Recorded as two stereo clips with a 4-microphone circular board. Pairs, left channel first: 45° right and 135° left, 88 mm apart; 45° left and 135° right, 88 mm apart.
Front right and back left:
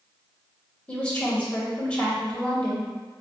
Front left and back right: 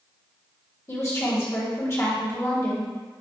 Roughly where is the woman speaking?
Ahead.